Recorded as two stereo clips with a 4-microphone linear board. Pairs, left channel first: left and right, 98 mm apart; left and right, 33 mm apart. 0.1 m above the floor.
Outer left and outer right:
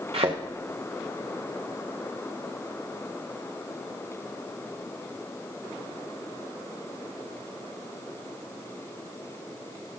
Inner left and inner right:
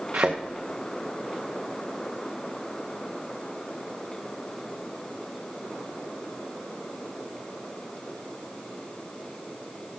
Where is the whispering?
No whispering in this recording.